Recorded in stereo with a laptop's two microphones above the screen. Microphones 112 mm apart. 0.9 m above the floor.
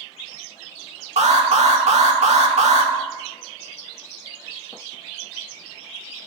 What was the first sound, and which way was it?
An alarm, 70° right (ahead or behind).